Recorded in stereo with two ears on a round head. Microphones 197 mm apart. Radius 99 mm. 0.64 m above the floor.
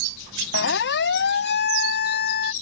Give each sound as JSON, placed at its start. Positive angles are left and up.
{"t": 0.5, "sound": "a siren", "side_deg": 55}